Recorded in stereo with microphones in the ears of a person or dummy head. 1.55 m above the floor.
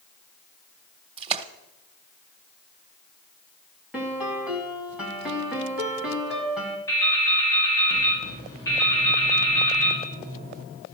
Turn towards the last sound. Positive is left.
turn(degrees=15)  # may be behind; listen again after turning